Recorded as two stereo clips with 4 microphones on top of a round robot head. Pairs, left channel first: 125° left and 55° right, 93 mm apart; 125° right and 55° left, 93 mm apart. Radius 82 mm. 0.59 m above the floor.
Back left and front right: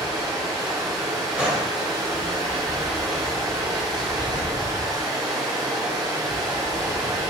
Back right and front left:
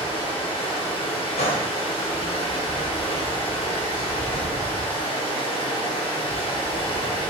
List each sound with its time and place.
0.0 s running water: 100° right, 1.6 m
1.4 s a gunshot: 135° right, 1.5 m